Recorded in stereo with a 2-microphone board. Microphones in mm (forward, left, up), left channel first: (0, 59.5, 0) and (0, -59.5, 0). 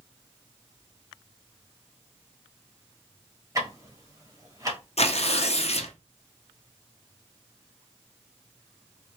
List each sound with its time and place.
3.5 s ticking: 25° right (ahead or behind), 1.2 m
5.0 s tearing paper: 65° left (ahead or behind), 0.6 m